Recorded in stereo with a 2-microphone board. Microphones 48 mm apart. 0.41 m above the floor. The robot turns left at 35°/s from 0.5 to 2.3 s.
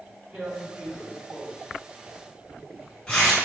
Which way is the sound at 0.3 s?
25° right (ahead or behind).